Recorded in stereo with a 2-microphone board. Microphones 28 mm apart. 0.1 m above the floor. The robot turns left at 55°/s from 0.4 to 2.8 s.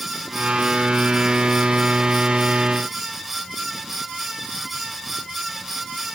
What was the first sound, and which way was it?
Only background noise.